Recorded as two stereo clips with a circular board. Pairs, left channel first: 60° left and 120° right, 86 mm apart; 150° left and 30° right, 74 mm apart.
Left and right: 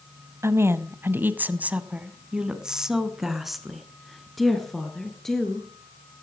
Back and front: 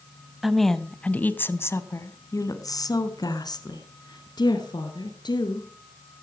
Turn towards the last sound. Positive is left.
turn(degrees=145)